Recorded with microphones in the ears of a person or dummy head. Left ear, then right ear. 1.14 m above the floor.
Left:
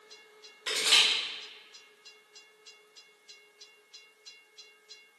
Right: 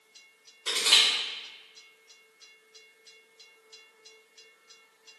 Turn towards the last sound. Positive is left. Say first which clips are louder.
# right 2 dB
turn(degrees=0)  # may be behind; listen again after turning